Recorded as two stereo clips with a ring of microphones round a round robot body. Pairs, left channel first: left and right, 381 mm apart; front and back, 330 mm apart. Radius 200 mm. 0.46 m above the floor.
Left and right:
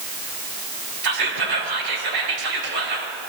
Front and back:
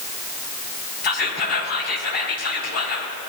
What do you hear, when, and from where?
1.0 s whispering: 65° right, 2.5 m